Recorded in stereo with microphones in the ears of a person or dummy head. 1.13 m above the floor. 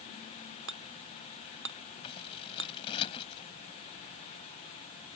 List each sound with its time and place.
0.7 s hammering: 60° right (ahead or behind)
2.0 s scissors: 30° left (ahead or behind)